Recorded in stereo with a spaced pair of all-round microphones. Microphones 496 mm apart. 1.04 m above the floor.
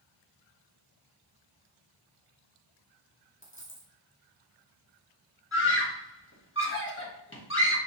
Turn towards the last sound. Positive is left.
turn(degrees=25)  # may be behind; listen again after turning